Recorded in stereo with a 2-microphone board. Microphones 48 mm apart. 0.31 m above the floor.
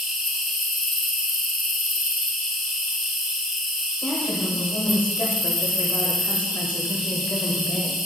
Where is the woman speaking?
30° left (ahead or behind), 0.9 m.